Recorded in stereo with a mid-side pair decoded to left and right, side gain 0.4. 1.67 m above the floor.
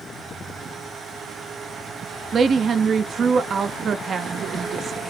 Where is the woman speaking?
50° right, 0.6 m.